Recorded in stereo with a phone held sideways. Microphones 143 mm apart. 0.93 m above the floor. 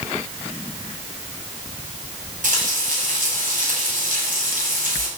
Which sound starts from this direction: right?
Frying, at 2.4 s.